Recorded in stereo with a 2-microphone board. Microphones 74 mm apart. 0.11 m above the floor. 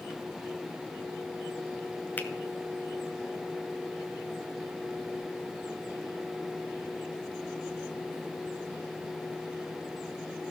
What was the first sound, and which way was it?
A finger snap, 25° left (ahead or behind).